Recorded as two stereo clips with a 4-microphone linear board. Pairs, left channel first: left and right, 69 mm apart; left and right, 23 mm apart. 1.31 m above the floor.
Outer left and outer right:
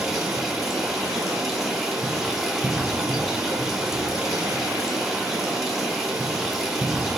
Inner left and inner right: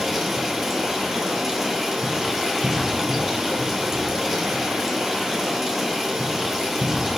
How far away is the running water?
About 1.4 m.